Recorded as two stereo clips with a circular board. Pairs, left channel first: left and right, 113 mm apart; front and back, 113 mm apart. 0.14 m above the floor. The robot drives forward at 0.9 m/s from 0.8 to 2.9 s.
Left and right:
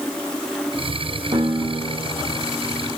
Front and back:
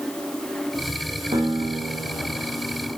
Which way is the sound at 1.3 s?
135° right.